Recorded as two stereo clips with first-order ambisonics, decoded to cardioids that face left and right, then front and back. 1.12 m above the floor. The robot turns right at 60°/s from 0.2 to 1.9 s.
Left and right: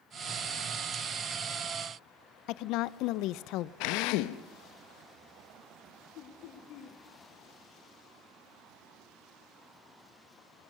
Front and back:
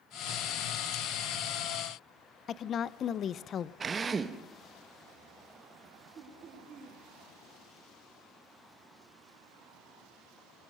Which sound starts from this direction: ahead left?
A woman speaking, at 2.5 s.